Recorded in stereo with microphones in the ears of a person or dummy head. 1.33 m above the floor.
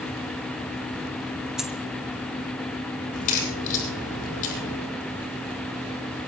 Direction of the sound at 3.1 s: 45° left (ahead or behind).